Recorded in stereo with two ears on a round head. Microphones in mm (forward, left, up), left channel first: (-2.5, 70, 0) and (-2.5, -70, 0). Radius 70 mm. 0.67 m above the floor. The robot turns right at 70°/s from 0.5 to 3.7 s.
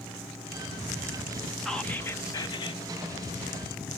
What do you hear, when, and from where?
1.6 s whispering: centre (ahead or behind), 0.5 m; by 2.8 s 30° left (ahead or behind), 0.5 m